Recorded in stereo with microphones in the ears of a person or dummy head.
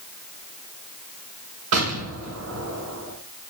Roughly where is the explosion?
Right.